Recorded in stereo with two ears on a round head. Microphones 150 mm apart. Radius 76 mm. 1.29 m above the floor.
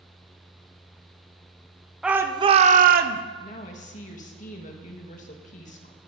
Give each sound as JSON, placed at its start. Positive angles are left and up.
{"t": 2.0, "sound": "a shout", "side_deg": -5, "distance_m": 0.6}
{"t": 3.4, "sound": "a woman speaking", "side_deg": 45, "distance_m": 1.4}